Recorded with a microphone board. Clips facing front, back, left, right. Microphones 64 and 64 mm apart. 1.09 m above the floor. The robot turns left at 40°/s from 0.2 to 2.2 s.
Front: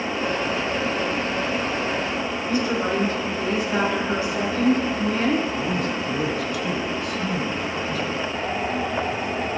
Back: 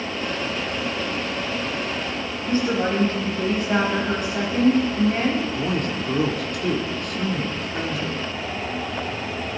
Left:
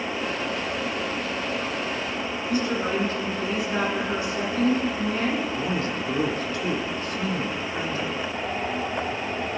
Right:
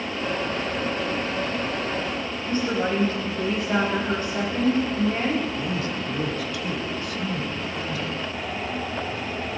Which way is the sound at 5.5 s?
145° left.